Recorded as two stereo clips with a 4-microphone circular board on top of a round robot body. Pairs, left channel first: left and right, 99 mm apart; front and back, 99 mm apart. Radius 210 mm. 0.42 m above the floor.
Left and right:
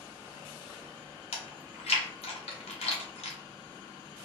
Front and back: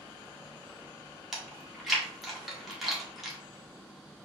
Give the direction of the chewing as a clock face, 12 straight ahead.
9 o'clock.